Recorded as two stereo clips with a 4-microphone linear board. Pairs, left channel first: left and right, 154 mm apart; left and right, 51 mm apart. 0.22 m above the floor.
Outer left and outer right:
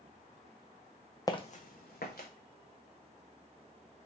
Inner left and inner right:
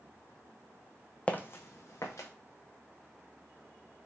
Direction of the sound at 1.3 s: 20° left (ahead or behind).